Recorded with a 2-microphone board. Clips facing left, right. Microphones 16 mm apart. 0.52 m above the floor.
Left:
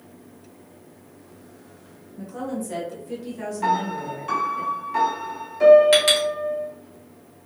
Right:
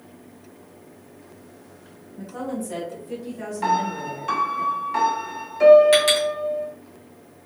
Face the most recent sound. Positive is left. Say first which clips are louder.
# even
turn(degrees=15)  # may be behind; listen again after turning